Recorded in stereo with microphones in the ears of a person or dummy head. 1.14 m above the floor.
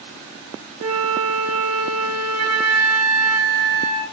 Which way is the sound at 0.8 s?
75° right (ahead or behind).